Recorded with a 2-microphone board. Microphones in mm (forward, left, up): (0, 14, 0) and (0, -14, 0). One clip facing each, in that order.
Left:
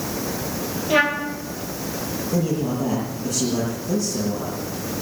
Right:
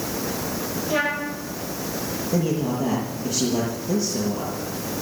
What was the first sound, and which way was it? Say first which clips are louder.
A trumpet: left 5 dB; 30° left (ahead or behind).